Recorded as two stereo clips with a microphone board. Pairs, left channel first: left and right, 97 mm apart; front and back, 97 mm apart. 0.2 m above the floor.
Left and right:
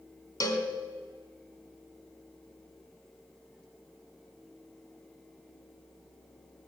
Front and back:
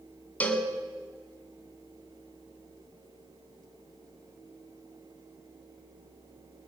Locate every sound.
0.4 s a cowbell: 65° left, 2 m